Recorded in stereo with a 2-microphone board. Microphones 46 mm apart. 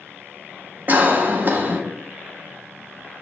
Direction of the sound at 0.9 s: 40° right (ahead or behind).